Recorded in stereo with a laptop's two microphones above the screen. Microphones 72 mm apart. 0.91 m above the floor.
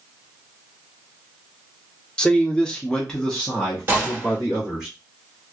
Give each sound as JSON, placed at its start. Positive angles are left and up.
{"t": 2.2, "sound": "a man speaking", "side_deg": 15, "distance_m": 0.8}
{"t": 3.9, "sound": "a gunshot", "side_deg": -30, "distance_m": 1.3}